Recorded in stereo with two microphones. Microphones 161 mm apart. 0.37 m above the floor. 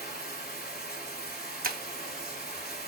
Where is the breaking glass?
65° right (ahead or behind), 0.6 m.